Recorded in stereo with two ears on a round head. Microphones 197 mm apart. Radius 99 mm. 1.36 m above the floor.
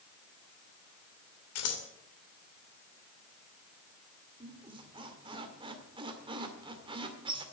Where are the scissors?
75° left (ahead or behind), 2.5 m.